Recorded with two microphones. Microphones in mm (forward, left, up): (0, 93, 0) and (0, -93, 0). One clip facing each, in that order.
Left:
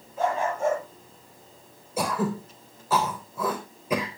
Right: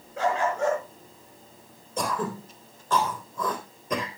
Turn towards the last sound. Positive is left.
turn(degrees=10)  # may be behind; listen again after turning